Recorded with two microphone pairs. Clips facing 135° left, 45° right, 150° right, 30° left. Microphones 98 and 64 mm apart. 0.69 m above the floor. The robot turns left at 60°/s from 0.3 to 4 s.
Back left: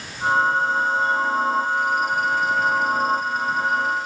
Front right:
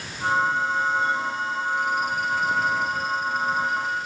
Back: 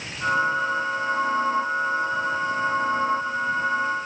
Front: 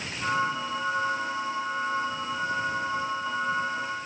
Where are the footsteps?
No footsteps in this recording.